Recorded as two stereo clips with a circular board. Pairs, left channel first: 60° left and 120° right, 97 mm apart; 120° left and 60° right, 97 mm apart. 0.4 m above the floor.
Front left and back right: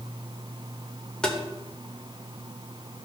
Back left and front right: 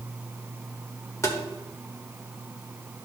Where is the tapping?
135° left, 1.2 m.